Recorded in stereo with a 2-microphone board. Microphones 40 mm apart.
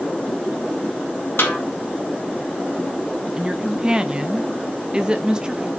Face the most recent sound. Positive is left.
turn(degrees=-20)  # may be behind; listen again after turning